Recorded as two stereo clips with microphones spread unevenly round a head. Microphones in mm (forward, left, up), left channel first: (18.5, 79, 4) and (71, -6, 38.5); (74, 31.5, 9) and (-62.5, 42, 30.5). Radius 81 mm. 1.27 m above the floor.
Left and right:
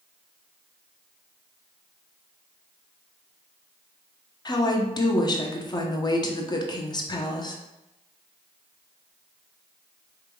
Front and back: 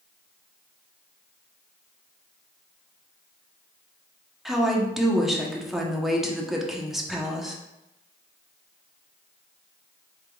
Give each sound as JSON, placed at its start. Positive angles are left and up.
{"t": 4.5, "sound": "a woman speaking", "azimuth_deg": 85, "distance_m": 0.9}